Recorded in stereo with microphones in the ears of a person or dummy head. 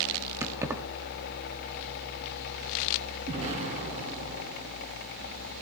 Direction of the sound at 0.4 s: 15° right (ahead or behind).